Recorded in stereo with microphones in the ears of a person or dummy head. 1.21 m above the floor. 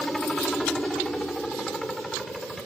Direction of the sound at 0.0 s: Centre (ahead or behind).